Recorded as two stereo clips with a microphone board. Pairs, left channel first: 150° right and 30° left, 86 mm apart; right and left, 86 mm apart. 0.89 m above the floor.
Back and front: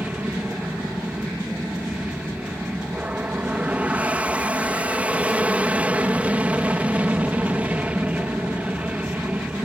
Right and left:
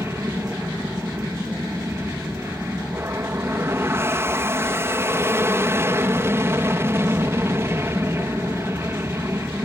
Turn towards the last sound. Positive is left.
turn(degrees=85)